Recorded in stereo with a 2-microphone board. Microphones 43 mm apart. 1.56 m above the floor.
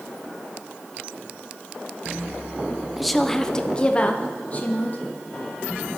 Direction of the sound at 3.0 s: 5° right (ahead or behind).